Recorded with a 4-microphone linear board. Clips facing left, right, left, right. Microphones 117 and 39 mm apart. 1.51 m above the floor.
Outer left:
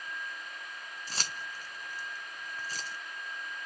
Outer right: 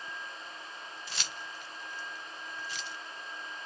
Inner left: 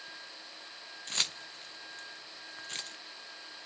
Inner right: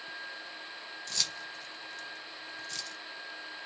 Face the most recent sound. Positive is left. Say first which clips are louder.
# outer left 4 dB, inner left 2 dB
turn(degrees=40)  # may be behind; listen again after turning